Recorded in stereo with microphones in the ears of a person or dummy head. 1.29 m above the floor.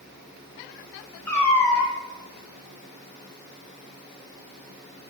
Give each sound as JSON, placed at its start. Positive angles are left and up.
{"t": 1.3, "sound": "a cat meowing", "side_deg": 10, "distance_m": 2.0}